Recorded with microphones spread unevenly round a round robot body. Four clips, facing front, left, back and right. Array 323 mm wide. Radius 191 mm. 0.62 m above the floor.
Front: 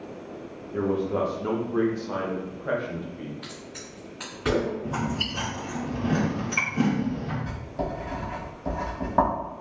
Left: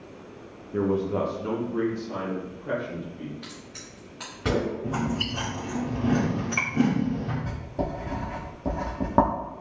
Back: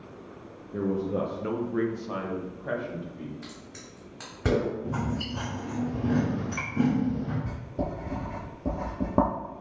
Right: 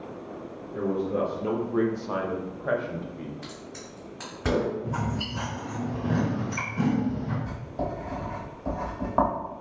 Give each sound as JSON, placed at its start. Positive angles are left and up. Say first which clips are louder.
{"t": 0.7, "sound": "a man speaking", "louder": "left 2 dB, front 3 dB", "azimuth_deg": 110, "distance_m": 0.7}
{"t": 3.4, "sound": "a crack", "louder": "right 3 dB, front 4 dB", "azimuth_deg": 175, "distance_m": 0.8}
{"t": 4.8, "sound": "chewing", "louder": "left 2 dB, front 2 dB", "azimuth_deg": 115, "distance_m": 1.4}
{"t": 7.5, "sound": "writing", "louder": "left 1 dB, front 1 dB", "azimuth_deg": 135, "distance_m": 0.7}